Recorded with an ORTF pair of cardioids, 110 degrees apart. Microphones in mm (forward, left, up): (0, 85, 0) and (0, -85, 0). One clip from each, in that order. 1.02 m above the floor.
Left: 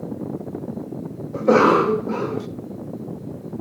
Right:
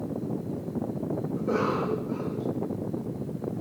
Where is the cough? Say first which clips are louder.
Left 14 dB; 65° left, 0.6 m.